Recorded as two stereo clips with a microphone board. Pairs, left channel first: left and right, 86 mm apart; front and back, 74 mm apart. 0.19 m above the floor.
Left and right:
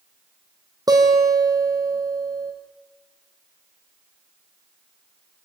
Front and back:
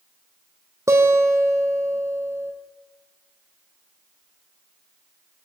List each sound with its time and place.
0.9 s a guitar: 130° right, 3.5 m